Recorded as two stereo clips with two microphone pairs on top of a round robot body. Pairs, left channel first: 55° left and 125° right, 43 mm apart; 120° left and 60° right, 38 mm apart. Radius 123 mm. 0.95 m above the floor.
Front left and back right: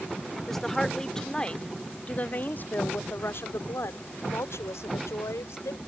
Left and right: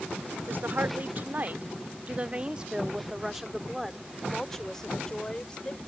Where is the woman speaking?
30° right; by 5.8 s 55° left.